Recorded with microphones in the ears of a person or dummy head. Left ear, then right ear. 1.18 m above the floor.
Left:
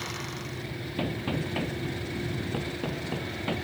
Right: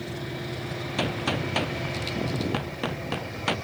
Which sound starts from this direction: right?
A gunshot, at 1.0 s.